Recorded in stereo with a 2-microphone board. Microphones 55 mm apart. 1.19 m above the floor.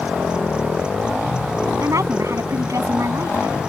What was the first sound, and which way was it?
A woman speaking, 75° right (ahead or behind).